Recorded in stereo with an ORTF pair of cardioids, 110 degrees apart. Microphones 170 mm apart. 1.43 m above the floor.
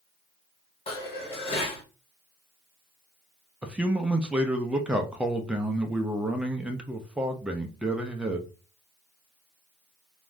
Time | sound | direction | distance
0.9 | dishes clattering | 35° left | 1.3 m
3.6 | a man speaking | 5° right | 0.5 m